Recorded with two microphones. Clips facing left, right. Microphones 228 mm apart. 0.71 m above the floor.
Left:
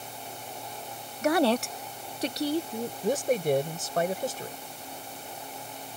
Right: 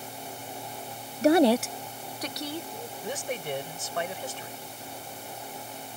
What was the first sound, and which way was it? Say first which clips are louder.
A woman speaking: right 4 dB; 35° right (ahead or behind).